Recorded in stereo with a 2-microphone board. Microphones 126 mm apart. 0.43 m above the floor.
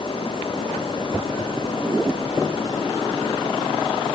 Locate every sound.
Only background noise.